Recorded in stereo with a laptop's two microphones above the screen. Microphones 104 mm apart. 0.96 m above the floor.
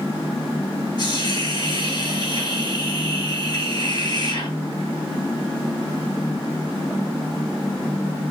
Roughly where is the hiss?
Left.